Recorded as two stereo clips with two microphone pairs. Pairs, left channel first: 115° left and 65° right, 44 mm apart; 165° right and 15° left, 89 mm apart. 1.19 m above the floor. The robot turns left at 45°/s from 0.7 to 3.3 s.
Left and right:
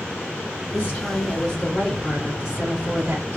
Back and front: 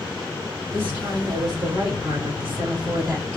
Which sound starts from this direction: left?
A woman speaking, at 0.7 s.